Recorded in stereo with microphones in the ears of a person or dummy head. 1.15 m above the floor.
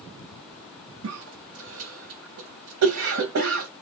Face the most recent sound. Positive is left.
turn(degrees=-80)